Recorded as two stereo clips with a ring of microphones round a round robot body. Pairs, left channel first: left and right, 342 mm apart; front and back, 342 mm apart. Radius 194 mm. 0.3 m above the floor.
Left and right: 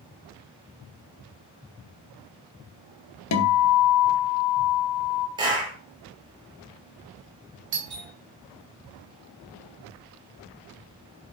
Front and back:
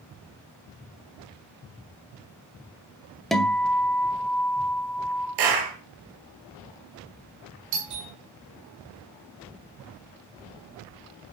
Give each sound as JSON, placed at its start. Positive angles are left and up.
{"t": 3.3, "sound": "a guitar", "azimuth_deg": 90, "distance_m": 1.8}
{"t": 5.4, "sound": "a clap", "azimuth_deg": -170, "distance_m": 5.0}
{"t": 7.7, "sound": "a doorbell", "azimuth_deg": -145, "distance_m": 5.0}